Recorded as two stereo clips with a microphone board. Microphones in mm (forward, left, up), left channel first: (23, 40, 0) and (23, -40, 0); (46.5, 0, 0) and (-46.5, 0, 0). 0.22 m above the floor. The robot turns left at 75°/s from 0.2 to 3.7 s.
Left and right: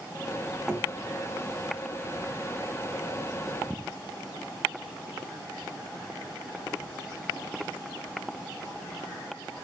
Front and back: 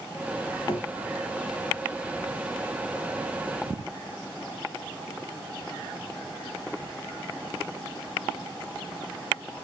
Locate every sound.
0.7 s knocking: 5° right, 1.8 m; by 0.9 s 20° right, 1.8 m